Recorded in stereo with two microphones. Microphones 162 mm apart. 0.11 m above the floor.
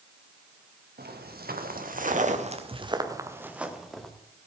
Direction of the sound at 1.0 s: 80° right.